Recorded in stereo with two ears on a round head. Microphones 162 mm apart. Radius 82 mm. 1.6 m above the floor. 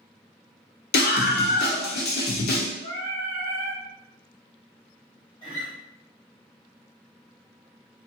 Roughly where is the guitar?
Left.